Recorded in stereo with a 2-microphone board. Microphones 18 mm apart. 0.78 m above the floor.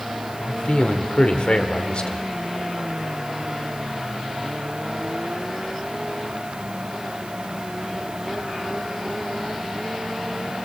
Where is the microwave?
No microwave in this recording.